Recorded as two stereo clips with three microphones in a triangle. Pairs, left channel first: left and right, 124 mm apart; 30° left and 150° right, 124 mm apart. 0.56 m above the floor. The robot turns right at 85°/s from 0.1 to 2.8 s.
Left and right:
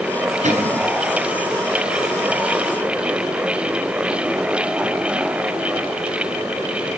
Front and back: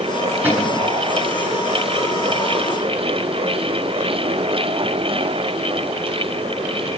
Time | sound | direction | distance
0.4 | a cupboard door | 75° right | 8 m